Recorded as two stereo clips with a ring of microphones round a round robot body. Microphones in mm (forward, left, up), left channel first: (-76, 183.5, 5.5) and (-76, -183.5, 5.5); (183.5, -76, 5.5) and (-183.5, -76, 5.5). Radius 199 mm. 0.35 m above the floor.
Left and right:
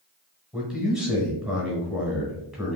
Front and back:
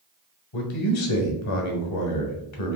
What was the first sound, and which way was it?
A man speaking, straight ahead.